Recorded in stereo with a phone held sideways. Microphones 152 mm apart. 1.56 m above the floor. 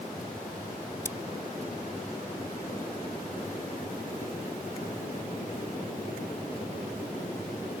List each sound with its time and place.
1.1 s scissors: 20° left (ahead or behind)